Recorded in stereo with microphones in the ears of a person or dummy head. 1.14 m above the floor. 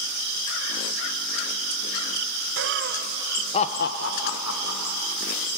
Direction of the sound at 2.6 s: 60° right (ahead or behind).